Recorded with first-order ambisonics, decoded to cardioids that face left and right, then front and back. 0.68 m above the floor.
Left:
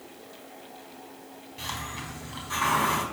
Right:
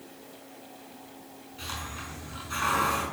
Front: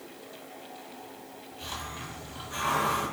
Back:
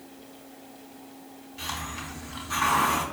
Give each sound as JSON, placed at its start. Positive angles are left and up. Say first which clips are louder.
{"t": 1.6, "sound": "a hiss", "louder": "left 2 dB, back 4 dB", "azimuth_deg": 130, "distance_m": 4.0}